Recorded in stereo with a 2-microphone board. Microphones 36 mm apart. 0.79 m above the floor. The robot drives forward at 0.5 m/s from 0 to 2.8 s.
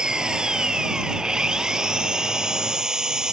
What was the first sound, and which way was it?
An engine running, 25° right (ahead or behind).